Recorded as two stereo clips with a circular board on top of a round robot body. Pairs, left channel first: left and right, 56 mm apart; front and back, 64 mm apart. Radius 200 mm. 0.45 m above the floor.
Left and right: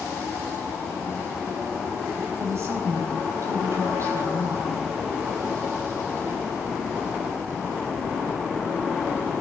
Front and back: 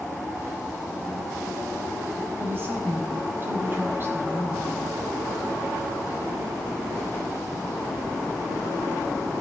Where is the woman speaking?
125° right, 4.5 m.